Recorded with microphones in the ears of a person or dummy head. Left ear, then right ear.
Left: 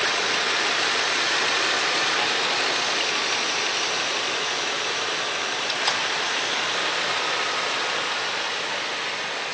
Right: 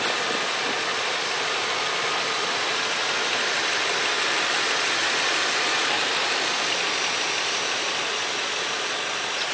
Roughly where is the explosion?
I don't hear an explosion.